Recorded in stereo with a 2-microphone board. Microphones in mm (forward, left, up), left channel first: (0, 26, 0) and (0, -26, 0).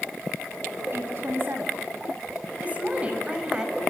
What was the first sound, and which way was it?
A woman speaking, 50° right (ahead or behind).